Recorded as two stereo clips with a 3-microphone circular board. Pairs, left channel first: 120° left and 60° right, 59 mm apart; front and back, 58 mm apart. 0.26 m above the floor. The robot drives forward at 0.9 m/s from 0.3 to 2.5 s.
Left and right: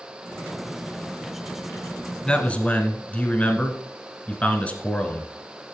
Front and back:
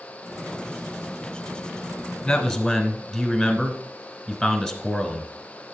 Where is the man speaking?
60° left, 1.1 m; by 5.3 s 85° left, 1.1 m.